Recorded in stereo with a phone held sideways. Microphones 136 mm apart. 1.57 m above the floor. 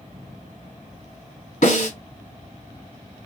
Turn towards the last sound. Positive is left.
turn(degrees=70)  # may be behind; listen again after turning